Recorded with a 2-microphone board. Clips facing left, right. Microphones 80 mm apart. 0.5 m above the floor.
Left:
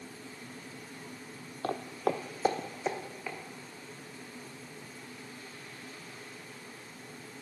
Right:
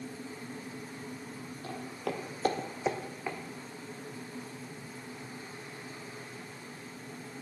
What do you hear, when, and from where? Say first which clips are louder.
1.6 s footsteps: left 6 dB; 65° left (ahead or behind), 1.1 m; by 3.4 s 15° right (ahead or behind), 2.0 m